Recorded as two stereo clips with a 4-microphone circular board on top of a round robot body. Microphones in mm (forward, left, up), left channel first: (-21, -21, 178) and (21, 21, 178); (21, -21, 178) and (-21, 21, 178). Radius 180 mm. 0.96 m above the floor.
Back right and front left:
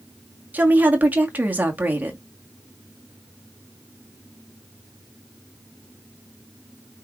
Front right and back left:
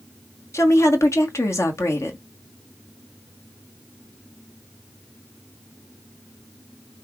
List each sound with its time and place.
0.5 s a woman speaking: 15° right, 1.9 m